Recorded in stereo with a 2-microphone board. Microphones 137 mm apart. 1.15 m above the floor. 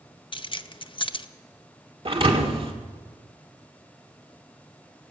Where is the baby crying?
I don't hear a baby crying.